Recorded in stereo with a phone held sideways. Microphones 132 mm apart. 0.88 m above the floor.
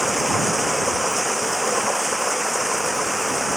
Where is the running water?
Centre (ahead or behind).